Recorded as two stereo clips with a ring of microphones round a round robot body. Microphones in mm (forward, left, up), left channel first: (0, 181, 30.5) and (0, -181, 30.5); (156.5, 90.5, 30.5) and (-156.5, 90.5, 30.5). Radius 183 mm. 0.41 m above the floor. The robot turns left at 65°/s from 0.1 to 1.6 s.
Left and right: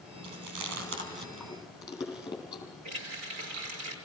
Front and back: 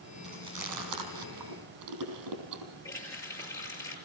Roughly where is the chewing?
Right.